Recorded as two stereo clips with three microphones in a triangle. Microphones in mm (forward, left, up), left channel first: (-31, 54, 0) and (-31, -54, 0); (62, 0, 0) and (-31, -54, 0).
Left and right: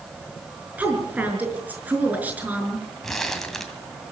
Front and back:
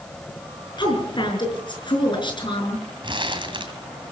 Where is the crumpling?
175° left, 2.5 m.